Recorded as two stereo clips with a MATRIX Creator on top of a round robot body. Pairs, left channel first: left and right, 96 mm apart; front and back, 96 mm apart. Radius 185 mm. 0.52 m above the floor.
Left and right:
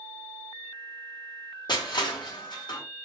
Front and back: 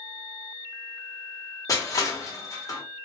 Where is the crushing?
55° left, 1.2 m.